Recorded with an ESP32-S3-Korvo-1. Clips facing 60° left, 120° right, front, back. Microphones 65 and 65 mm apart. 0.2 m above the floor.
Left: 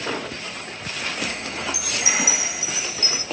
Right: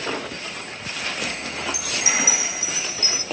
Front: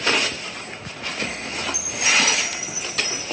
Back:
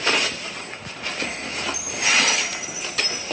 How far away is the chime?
About 1.6 m.